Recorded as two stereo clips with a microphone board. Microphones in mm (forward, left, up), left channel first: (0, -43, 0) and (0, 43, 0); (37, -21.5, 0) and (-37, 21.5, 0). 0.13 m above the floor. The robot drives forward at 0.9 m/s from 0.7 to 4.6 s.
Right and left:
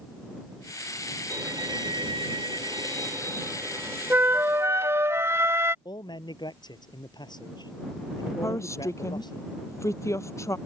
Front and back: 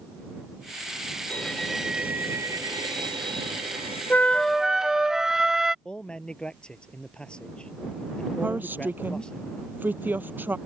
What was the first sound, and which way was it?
A violin, 45° left.